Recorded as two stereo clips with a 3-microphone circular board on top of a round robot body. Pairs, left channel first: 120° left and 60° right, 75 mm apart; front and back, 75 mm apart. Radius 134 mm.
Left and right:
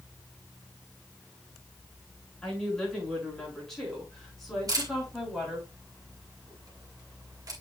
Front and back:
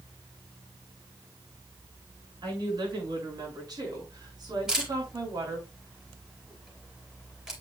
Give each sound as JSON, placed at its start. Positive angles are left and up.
{"t": 2.4, "sound": "a woman speaking", "azimuth_deg": -160, "distance_m": 6.5}
{"t": 4.7, "sound": "a camera shutter", "azimuth_deg": -100, "distance_m": 4.5}